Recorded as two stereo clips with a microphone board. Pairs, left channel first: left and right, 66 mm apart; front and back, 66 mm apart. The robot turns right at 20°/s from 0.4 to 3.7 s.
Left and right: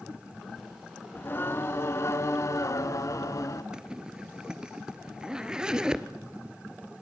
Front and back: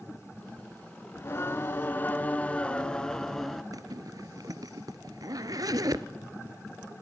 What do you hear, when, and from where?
1.1 s singing: 40° left, 1.0 m; by 3.6 s 85° left, 1.0 m
3.7 s a zipper: 165° right, 1.0 m